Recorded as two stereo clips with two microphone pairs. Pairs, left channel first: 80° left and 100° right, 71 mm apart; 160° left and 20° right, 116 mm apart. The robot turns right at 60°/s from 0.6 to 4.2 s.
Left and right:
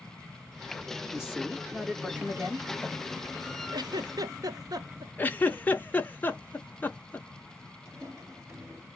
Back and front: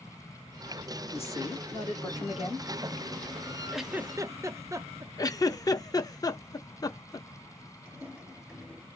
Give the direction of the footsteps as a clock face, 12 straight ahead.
3 o'clock.